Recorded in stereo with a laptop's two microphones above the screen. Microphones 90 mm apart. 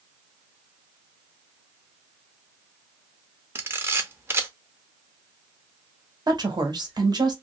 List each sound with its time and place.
3.5 s a camera shutter: 25° right (ahead or behind), 0.6 m
6.3 s a woman speaking: 50° right (ahead or behind), 1.1 m